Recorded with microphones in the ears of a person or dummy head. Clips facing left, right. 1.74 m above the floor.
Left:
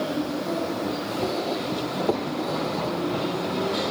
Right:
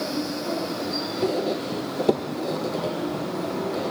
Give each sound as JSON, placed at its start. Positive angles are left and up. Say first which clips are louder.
{"t": 1.2, "sound": "a squeak", "louder": "right 4 dB", "side_deg": -25, "distance_m": 1.1}